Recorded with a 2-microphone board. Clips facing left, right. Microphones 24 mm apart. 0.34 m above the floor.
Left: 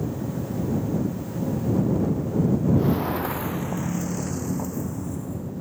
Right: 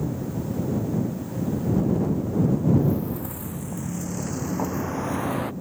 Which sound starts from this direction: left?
Footsteps, at 2.8 s.